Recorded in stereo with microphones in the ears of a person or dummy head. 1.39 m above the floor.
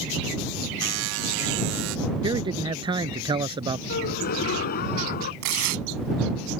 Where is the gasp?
50° left (ahead or behind).